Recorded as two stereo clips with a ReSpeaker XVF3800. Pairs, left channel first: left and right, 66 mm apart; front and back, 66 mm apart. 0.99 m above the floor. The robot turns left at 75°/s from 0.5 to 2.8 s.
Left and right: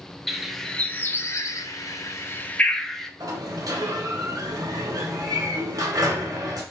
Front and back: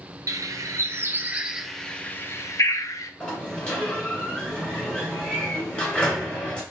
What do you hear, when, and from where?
0.3 s a bird: straight behind, 0.5 m; by 3.1 s 5° left, 0.5 m
3.2 s a sliding door: 70° right, 1.8 m